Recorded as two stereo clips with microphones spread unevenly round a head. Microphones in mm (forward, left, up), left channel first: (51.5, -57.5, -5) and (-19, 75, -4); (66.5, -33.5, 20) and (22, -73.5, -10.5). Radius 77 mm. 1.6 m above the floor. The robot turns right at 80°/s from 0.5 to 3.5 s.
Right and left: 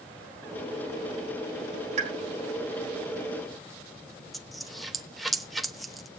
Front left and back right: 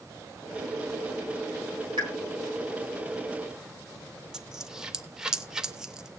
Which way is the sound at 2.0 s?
165° left.